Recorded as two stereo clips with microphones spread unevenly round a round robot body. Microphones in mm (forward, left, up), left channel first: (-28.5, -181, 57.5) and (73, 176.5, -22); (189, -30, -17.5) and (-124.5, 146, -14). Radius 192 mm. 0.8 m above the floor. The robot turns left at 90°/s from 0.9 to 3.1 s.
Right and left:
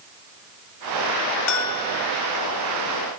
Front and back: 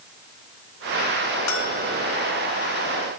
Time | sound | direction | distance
1.5 | a bell | 80° right | ?